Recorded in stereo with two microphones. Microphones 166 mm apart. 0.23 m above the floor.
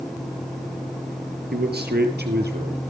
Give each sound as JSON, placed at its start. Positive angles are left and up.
{"t": 1.5, "sound": "a man speaking", "side_deg": -75, "distance_m": 4.5}